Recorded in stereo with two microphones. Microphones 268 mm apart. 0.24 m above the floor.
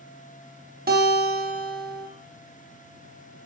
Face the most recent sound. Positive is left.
turn(degrees=-35)  # may be behind; listen again after turning